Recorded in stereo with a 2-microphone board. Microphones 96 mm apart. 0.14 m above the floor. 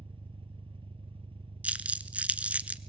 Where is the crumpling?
15° right (ahead or behind), 0.8 m.